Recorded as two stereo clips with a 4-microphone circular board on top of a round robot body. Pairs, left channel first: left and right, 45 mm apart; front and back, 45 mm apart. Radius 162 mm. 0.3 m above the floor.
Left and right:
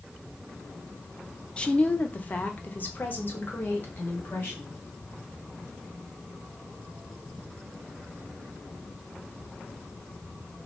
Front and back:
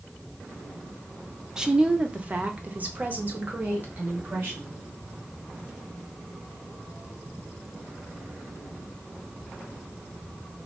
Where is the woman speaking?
120° left, 0.9 m; by 4.7 s 135° left, 2.5 m.